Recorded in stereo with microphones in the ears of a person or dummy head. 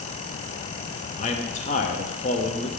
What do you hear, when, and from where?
1.2 s a man speaking: 35° left (ahead or behind), 0.6 m